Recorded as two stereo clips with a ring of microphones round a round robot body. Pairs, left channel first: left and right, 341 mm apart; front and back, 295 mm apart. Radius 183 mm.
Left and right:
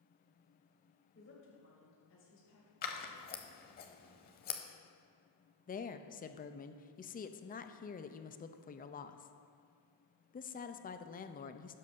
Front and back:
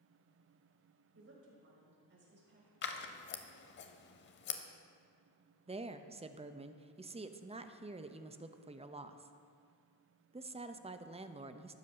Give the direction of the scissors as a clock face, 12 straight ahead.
11 o'clock.